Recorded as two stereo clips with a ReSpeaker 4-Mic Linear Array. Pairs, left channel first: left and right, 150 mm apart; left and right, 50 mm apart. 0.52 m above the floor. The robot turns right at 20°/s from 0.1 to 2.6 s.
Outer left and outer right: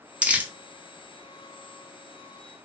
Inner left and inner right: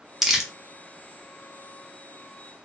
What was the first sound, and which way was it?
Crumpling, 10° right (ahead or behind).